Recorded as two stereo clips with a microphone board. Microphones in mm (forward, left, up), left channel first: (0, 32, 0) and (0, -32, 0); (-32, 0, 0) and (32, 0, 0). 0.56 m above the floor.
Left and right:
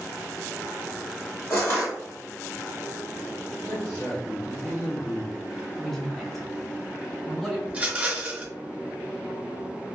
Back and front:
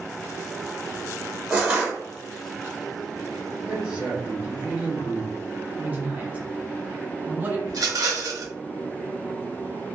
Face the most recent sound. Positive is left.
turn(degrees=-20)